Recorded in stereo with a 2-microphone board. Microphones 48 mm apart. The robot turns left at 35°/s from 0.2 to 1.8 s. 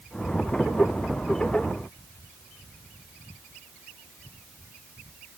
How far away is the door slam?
I don't hear a door slam.